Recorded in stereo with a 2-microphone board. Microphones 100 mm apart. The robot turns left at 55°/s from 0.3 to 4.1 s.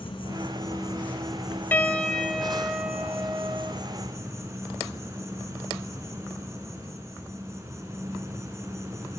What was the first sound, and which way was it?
An insect, 55° left.